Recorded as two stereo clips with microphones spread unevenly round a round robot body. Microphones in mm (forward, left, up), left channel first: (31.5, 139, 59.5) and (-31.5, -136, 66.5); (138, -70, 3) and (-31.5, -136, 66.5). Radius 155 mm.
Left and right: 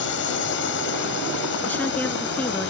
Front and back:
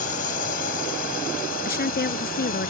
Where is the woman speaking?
5° right.